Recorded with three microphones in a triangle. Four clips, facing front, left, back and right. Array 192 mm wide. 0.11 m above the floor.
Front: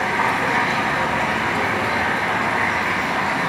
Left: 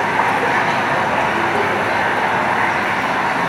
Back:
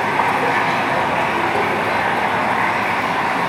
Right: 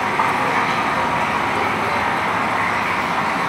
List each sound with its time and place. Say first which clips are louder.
0.0 s running water: left 2 dB, back 3 dB; 130° left, 3 m